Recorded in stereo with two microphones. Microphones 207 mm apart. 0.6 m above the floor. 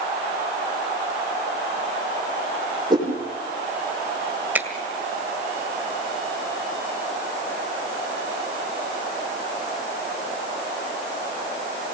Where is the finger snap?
10° right (ahead or behind), 2 m.